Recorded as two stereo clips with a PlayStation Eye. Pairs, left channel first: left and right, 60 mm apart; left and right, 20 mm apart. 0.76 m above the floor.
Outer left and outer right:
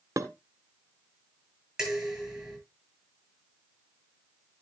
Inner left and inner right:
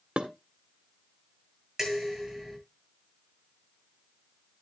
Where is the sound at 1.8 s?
10° right (ahead or behind), 9 m.